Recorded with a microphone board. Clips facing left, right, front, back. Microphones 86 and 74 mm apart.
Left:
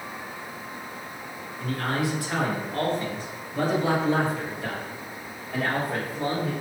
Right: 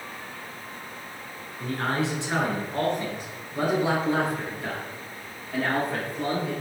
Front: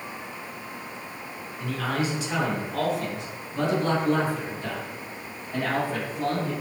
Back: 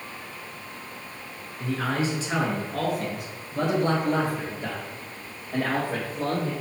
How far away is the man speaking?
About 1.5 m.